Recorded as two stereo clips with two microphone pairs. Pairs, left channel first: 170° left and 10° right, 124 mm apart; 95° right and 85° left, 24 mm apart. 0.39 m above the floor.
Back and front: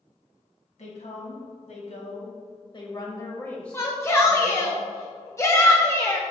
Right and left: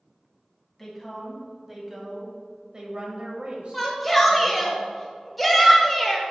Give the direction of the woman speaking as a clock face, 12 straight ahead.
6 o'clock.